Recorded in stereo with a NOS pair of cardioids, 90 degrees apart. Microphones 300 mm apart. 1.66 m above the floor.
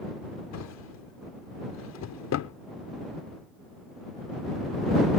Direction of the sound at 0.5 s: 70° left.